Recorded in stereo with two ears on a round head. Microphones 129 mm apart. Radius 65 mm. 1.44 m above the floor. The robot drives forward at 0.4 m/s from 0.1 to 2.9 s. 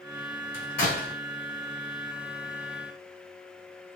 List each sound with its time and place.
0.5 s a door slam: 65° left (ahead or behind), 3.5 m; by 1.2 s 70° left (ahead or behind), 3.5 m